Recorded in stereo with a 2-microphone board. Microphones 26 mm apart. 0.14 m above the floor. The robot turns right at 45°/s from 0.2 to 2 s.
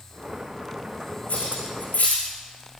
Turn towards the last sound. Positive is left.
turn(degrees=80)